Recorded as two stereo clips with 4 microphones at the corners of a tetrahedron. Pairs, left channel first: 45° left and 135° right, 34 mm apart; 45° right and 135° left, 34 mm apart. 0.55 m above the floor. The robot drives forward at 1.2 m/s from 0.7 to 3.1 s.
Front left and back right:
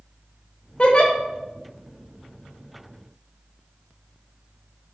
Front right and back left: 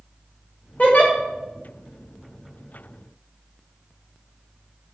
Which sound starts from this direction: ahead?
A giggle, at 0.8 s.